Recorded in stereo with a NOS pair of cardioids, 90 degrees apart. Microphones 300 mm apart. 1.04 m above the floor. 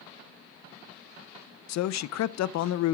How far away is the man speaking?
About 0.6 m.